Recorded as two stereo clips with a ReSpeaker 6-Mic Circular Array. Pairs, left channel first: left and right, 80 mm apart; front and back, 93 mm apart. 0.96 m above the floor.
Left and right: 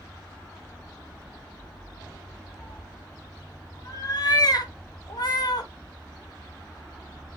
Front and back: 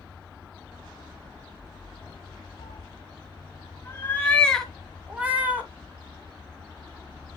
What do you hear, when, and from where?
2.6 s a cat meowing: 30° left, 1.8 m; by 5.7 s 115° left, 1.7 m